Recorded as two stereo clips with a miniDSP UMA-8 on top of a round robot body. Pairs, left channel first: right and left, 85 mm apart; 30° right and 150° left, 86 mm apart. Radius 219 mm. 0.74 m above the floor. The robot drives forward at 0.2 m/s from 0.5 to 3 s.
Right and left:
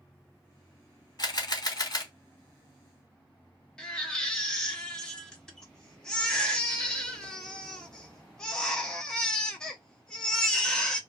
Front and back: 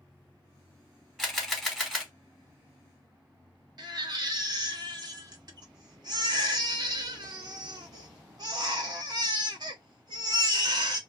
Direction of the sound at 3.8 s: 170° right.